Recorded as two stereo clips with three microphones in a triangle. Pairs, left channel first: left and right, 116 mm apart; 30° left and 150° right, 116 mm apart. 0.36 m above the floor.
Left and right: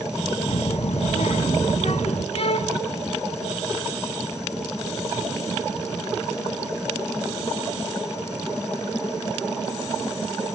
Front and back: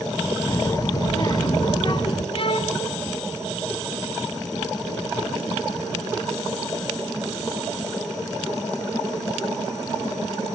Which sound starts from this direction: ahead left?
A violin, at 2.3 s.